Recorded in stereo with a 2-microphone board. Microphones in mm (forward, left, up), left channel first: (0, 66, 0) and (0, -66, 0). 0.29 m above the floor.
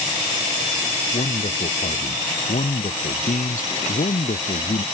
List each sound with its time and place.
1.1 s a man speaking: 80° left